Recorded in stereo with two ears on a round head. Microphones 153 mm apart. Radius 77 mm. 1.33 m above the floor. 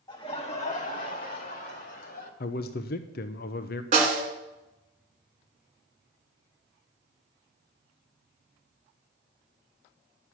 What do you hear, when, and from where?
0.1 s laughter: 25° left (ahead or behind), 0.9 m; by 2.3 s 60° left (ahead or behind), 2.5 m
2.4 s a man speaking: 60° left (ahead or behind), 0.6 m
3.9 s a snare drum: 40° right (ahead or behind), 2 m